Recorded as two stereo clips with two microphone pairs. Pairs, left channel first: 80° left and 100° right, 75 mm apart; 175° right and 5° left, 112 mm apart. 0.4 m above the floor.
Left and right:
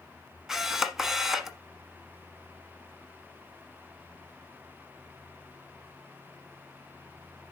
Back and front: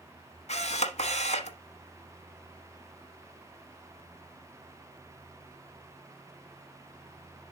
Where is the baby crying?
I don't hear a baby crying.